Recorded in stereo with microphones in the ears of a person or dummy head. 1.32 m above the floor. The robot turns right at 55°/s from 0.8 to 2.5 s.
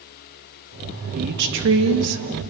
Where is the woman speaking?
135° right, 2 m; by 2.2 s 80° right, 2 m.